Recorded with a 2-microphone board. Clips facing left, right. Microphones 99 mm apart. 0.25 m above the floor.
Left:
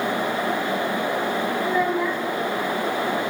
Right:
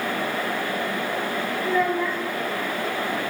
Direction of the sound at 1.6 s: 10° left (ahead or behind).